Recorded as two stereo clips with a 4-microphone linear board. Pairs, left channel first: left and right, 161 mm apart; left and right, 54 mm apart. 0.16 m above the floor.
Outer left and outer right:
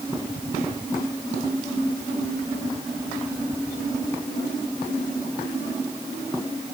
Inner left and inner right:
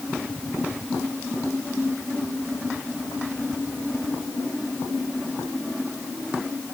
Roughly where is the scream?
No scream in this recording.